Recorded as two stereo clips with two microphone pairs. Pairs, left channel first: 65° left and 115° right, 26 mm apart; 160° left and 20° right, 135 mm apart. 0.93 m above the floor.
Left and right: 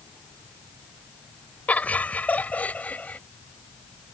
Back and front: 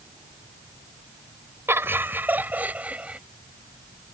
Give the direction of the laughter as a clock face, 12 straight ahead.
10 o'clock.